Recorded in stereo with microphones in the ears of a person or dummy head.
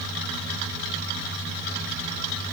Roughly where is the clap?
I don't hear a clap.